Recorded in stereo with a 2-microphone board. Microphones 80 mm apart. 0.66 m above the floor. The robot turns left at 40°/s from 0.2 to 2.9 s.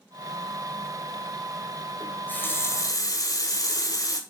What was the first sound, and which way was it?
A running tap, 170° left.